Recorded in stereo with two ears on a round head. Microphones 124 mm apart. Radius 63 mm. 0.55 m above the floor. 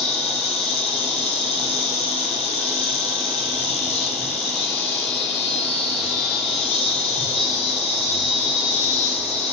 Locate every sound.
0.0 s an insect: 45° left (ahead or behind), 1.6 m